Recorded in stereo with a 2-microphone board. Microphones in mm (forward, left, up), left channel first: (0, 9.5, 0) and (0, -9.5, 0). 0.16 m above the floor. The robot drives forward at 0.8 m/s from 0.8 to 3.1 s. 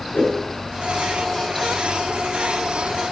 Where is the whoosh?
80° left, 5.5 m.